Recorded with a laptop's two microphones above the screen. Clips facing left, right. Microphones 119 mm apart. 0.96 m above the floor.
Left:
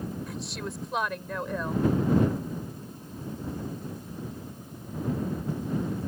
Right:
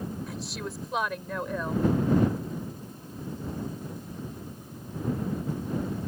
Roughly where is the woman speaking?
Centre.